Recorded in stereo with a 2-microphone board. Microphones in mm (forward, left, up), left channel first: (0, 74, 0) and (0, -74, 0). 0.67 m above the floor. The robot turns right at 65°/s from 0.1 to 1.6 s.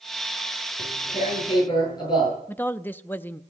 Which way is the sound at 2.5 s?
10° left (ahead or behind).